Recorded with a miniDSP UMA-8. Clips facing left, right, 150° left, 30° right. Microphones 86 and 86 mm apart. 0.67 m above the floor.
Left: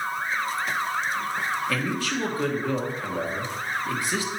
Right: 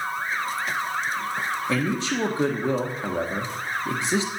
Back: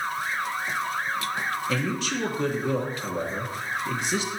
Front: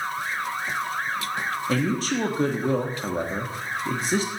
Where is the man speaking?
40° right, 1.3 m.